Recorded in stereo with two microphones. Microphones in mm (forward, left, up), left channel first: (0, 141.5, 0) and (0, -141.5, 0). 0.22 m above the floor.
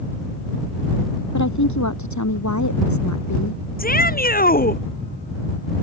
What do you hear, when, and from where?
1.3 s a woman speaking: 80° left
3.8 s a shout: 30° left (ahead or behind)